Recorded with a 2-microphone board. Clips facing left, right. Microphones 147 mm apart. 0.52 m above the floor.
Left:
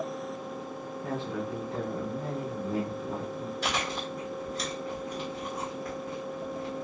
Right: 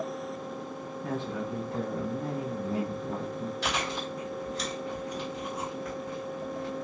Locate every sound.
1.0 s a man speaking: 10° left (ahead or behind), 0.8 m
3.6 s chewing: 45° left (ahead or behind), 1.6 m